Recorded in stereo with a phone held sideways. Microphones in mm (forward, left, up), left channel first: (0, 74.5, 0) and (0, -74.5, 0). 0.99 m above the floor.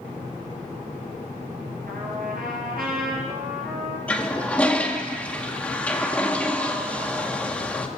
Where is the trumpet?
80° right, 5 m.